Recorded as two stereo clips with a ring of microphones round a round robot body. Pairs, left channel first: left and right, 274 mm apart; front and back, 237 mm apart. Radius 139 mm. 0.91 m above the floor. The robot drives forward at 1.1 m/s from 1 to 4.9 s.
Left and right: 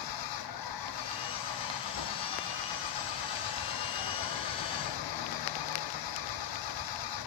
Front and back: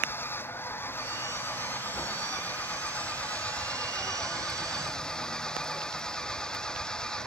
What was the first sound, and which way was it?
An engine running, 80° left.